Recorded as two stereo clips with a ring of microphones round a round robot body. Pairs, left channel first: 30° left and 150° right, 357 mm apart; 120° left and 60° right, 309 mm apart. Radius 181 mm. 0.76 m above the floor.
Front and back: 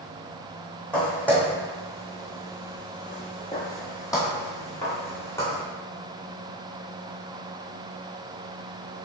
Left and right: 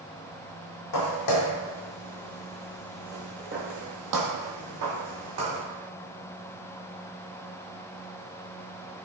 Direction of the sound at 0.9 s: 115° left.